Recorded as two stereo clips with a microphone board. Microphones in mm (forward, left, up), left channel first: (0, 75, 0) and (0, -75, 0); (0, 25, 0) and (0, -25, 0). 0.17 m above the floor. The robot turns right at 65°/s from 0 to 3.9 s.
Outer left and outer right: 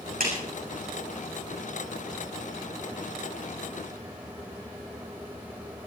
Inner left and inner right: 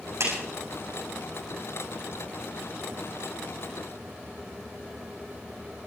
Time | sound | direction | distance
0.2 | a clap | 70° right (ahead or behind) | 8.5 m